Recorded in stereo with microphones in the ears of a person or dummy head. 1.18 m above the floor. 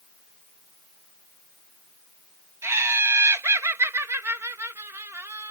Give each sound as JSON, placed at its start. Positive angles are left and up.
{"t": 2.6, "sound": "laughter", "side_deg": -10}